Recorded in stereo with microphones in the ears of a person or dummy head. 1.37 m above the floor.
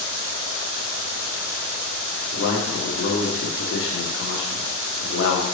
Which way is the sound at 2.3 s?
80° left.